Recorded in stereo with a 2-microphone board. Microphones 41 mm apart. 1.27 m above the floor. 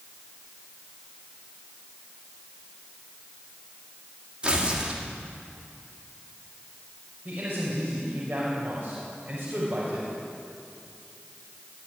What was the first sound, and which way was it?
Tearing paper, 25° right (ahead or behind).